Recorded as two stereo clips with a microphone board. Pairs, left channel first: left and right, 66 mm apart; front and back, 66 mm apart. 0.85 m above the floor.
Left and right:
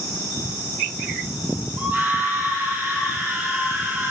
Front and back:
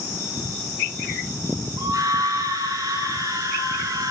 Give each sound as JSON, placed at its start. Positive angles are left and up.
{"t": 1.8, "sound": "a scream", "azimuth_deg": -155, "distance_m": 9.5}